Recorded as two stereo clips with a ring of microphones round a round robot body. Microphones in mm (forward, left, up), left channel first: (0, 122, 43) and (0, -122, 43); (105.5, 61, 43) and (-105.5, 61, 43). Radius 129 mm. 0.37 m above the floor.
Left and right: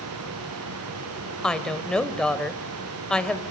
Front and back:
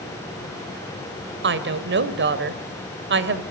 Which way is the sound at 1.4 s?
175° left.